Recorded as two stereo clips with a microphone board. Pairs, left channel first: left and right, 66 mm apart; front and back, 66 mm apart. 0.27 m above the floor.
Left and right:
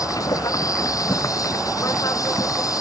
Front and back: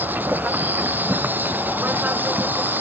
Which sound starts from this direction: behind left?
An insect, at 0.0 s.